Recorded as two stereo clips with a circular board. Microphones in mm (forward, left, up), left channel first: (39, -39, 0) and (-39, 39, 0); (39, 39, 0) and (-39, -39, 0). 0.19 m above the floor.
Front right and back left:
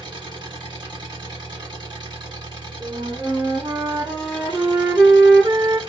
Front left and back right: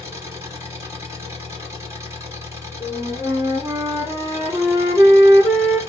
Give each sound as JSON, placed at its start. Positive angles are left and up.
{"t": 0.0, "sound": "an engine running", "azimuth_deg": 170, "distance_m": 1.7}
{"t": 2.8, "sound": "a flute", "azimuth_deg": -170, "distance_m": 1.8}